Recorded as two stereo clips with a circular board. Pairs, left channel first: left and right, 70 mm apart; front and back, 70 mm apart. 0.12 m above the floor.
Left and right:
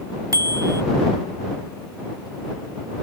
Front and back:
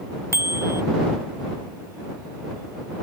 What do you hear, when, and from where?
0.3 s a bicycle bell: 130° right